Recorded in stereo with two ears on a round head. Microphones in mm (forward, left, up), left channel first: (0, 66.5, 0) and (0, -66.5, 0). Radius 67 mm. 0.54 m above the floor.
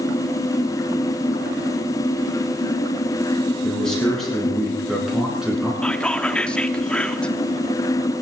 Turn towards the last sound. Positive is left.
turn(degrees=5)  # may be behind; listen again after turning